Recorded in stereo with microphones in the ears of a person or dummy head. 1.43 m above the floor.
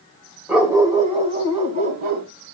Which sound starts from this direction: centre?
A dog barking, at 0.5 s.